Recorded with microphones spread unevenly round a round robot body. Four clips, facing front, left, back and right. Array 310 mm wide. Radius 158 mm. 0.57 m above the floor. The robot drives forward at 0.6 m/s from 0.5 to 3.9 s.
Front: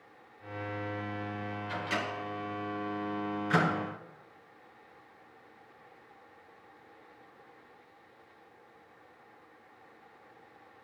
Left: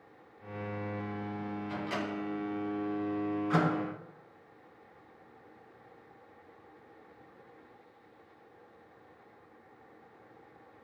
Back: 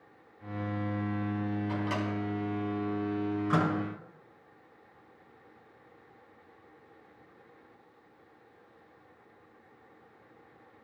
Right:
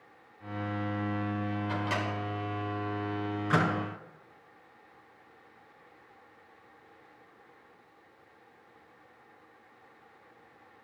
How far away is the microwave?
About 4.5 m.